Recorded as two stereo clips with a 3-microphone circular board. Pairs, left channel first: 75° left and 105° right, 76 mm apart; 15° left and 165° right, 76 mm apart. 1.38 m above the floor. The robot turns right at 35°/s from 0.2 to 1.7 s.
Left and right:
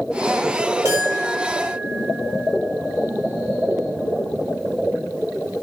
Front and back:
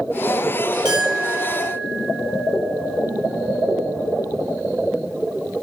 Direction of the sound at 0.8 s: 155° right.